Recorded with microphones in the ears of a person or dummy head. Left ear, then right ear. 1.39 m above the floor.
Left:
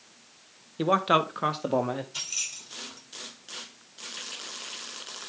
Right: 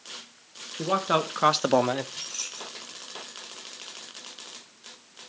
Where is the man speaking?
30° left (ahead or behind), 1.1 m; by 2.0 s 75° right (ahead or behind), 1.0 m.